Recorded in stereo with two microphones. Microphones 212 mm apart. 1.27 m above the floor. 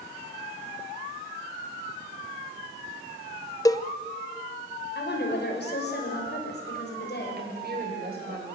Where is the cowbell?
15° left (ahead or behind), 0.7 m.